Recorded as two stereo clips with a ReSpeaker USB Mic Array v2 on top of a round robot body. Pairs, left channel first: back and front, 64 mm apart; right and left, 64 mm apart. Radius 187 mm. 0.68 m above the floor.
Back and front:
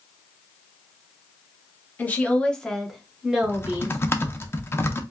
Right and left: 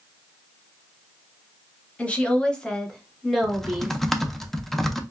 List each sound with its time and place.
2.0 s a woman speaking: 145° right, 1.1 m; by 4.0 s 20° left, 1.1 m
3.4 s typing on a keyboard: 175° right, 0.7 m